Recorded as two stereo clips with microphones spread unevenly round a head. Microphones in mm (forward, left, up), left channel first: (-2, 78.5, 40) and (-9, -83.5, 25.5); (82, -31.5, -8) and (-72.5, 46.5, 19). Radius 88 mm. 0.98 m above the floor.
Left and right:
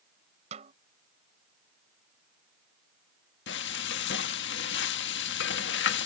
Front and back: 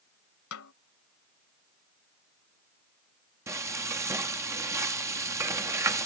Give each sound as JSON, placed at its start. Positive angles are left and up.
{"t": 0.5, "sound": "a snare drum", "azimuth_deg": -40}
{"t": 3.5, "sound": "frying", "azimuth_deg": 75}